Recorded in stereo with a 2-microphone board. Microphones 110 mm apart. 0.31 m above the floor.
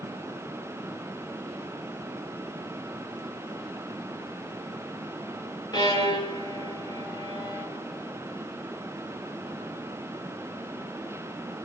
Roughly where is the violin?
Left.